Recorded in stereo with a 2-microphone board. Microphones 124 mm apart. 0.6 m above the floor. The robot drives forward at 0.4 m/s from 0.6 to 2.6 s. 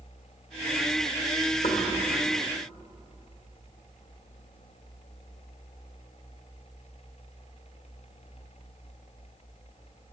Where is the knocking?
65° left (ahead or behind), 1.5 m.